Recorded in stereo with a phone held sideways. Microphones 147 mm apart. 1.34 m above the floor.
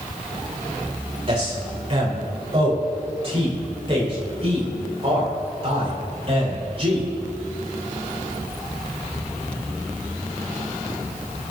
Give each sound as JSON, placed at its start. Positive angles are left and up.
{"t": 1.3, "sound": "a man speaking", "side_deg": -40, "distance_m": 4.5}